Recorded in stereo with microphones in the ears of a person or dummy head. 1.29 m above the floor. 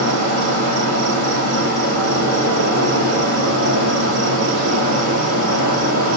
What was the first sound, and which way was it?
An insect, 75° right (ahead or behind).